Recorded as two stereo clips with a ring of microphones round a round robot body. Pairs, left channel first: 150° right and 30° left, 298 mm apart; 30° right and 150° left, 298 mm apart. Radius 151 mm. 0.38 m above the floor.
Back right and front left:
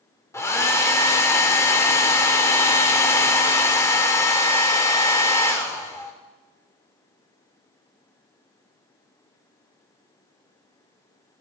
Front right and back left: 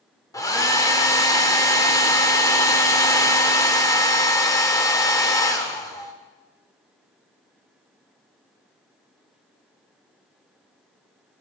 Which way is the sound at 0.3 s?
85° right.